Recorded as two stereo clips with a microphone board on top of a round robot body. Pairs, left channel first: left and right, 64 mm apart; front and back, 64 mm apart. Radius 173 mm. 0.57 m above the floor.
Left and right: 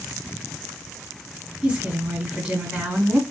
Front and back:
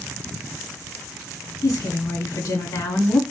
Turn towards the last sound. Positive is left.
turn(degrees=-20)